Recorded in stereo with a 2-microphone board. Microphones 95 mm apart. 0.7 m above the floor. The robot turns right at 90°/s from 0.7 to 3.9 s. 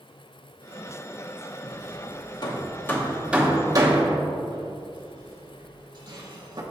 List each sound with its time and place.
1.6 s hammering: 30° left (ahead or behind), 0.9 m; by 6.6 s 45° right (ahead or behind), 0.9 m